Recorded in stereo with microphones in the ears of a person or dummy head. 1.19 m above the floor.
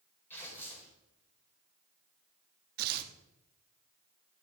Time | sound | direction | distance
0.3 | tearing paper | 10° left (ahead or behind) | 4 m
2.8 | tearing paper | 50° right (ahead or behind) | 1.2 m